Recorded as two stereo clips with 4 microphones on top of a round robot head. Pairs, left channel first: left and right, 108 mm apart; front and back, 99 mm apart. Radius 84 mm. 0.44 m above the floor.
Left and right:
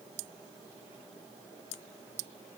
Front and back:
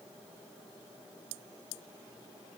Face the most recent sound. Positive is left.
No sound to turn to.